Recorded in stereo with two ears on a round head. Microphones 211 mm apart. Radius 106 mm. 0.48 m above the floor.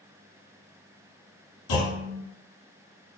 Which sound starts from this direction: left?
A clunk, at 1.7 s.